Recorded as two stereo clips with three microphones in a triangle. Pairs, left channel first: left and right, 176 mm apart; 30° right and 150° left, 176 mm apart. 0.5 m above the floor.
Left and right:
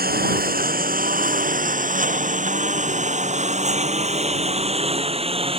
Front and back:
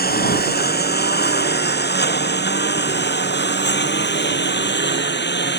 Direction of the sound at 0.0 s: 60° right.